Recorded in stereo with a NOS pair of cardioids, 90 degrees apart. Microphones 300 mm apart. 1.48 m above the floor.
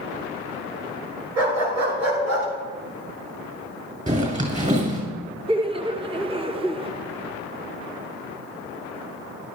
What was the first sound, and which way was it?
A dog barking, 60° right.